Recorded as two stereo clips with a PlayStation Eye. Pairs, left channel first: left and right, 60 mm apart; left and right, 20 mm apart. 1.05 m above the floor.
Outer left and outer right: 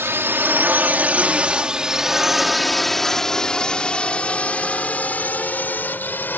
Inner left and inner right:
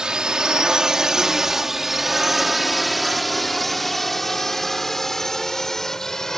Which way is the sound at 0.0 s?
45° right (ahead or behind).